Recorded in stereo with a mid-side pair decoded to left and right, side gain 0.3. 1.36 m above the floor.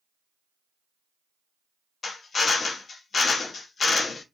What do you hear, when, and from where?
2.0 s a drill: 70° left, 0.6 m